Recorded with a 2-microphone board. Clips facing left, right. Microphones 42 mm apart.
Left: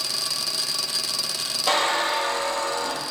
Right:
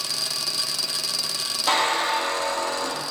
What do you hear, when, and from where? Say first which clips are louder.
1.7 s a squeak: even; 10° left (ahead or behind), 1.8 m